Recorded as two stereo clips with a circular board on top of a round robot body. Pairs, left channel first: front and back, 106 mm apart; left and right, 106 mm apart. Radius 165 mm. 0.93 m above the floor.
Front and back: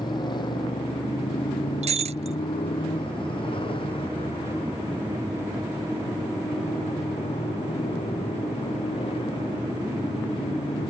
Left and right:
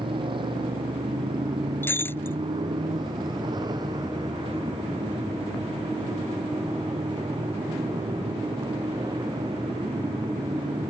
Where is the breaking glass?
160° left.